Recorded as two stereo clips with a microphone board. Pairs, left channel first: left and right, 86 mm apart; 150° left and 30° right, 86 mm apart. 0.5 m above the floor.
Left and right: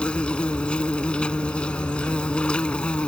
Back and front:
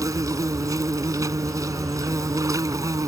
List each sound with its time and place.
0.0 s an insect: 10° left